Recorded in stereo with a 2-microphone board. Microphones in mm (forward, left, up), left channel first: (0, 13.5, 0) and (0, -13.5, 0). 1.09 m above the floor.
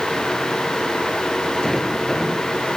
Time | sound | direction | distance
1.6 | a sliding door | 5° left (ahead or behind) | ?